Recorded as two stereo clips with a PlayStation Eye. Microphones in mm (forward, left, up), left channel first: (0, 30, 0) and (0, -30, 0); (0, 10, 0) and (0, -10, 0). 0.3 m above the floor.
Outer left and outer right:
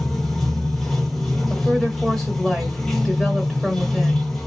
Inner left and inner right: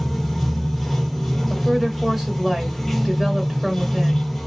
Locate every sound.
0.0 s running water: 10° left (ahead or behind), 1.0 m
1.5 s a woman speaking: 5° left (ahead or behind), 0.9 m